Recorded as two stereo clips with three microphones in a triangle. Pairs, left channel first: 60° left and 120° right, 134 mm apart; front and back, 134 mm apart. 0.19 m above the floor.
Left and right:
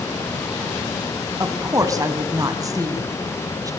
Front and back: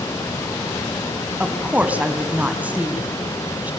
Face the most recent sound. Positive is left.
turn(degrees=-115)